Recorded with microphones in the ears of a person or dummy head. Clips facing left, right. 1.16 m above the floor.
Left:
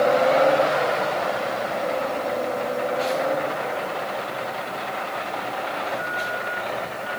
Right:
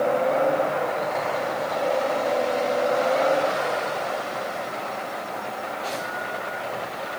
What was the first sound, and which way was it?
Only background noise.